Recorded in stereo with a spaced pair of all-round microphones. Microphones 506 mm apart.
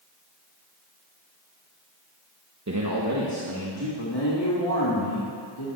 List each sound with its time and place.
2.7 s a man speaking: 30° right (ahead or behind), 1.0 m; by 3.9 s 50° right (ahead or behind), 2.5 m
4.0 s a man speaking: 50° left (ahead or behind), 2.5 m